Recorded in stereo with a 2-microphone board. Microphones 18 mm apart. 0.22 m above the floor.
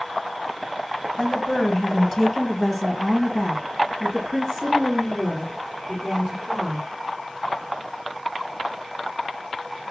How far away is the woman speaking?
About 1.2 m.